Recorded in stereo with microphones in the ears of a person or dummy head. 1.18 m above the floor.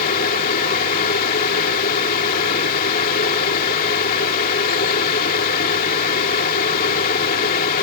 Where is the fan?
50° left (ahead or behind).